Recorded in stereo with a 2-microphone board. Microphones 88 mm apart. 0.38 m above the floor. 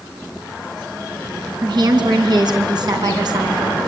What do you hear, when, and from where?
1.6 s a woman speaking: 60° right (ahead or behind), 3.5 m